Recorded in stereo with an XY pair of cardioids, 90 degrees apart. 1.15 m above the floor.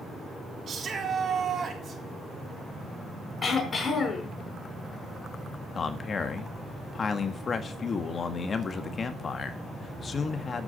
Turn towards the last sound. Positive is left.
turn(degrees=45)